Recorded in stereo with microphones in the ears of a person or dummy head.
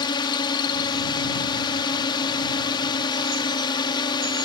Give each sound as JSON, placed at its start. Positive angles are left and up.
{"t": 0.0, "sound": "a drone", "side_deg": 30}